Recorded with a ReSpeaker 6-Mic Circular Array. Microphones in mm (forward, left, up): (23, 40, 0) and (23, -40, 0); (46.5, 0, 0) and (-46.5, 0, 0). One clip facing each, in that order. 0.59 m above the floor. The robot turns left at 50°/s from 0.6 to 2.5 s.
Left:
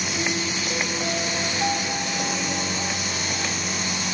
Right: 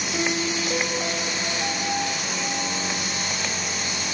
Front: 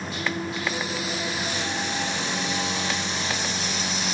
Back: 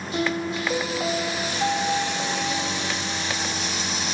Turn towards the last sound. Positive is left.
turn(degrees=110)